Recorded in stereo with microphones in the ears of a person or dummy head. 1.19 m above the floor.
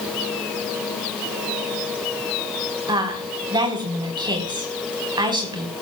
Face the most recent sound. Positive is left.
turn(degrees=-25)  # may be behind; listen again after turning